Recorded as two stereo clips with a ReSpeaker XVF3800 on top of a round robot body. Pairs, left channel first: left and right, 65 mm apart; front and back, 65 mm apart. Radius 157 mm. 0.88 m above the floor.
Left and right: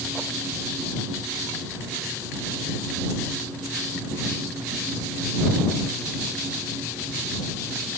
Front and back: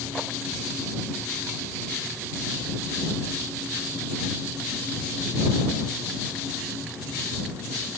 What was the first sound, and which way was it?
Only background noise.